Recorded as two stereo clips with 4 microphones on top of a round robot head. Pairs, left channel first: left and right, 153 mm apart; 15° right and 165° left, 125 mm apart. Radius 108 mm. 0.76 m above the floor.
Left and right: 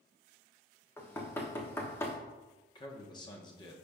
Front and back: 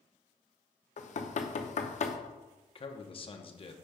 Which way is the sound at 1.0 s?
10° left.